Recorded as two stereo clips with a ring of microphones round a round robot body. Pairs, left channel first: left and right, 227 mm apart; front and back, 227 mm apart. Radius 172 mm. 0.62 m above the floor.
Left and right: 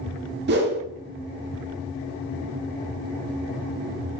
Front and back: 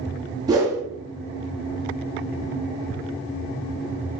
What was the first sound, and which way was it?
A whoosh, 110° right.